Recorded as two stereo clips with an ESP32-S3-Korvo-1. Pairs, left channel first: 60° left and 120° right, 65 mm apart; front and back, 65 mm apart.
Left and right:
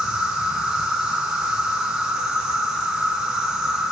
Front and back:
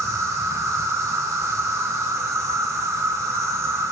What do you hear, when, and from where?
0.0 s an insect: 165° left, 3 m